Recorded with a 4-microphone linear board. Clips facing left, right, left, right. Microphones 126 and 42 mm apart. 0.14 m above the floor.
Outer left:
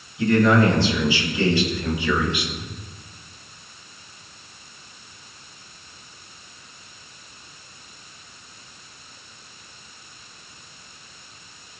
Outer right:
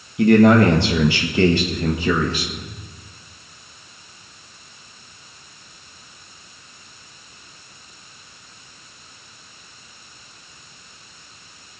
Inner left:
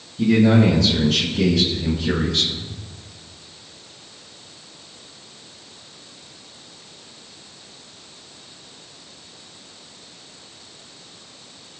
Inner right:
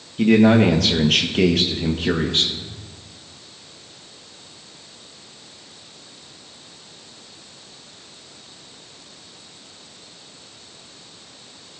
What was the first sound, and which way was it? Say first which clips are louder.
A man speaking: outer right 5 dB, inner right 2 dB; 65° right (ahead or behind).